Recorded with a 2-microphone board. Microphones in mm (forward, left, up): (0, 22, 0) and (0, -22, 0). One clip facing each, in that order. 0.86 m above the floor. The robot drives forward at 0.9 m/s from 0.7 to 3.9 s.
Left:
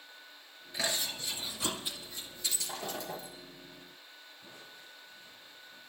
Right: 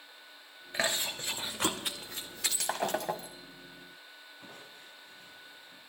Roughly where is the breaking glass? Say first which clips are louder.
Right 9 dB; right.